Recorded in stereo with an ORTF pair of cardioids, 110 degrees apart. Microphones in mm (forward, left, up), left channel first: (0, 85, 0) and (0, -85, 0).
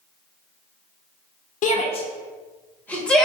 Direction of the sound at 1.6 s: 45° left.